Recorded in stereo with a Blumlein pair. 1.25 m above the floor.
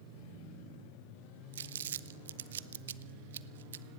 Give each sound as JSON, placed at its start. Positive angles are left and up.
{"t": 1.5, "sound": "crumpling", "azimuth_deg": -60, "distance_m": 0.6}